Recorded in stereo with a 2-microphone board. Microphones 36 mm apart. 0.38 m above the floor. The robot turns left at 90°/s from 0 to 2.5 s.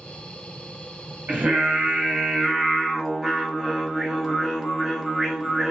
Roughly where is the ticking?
I don't hear ticking.